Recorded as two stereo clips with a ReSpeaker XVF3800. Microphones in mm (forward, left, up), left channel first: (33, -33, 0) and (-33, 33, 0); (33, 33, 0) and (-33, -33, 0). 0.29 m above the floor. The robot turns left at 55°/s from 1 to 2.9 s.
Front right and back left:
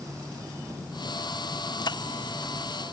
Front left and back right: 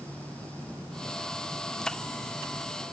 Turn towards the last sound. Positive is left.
No sound to turn to.